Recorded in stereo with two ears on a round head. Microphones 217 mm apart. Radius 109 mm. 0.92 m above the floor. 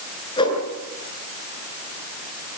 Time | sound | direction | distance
0.4 | a whoosh | 20° left (ahead or behind) | 8 m